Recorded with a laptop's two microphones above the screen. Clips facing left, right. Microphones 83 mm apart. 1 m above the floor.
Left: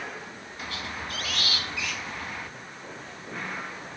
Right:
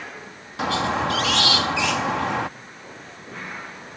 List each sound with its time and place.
0.6 s a squeak: 75° right (ahead or behind)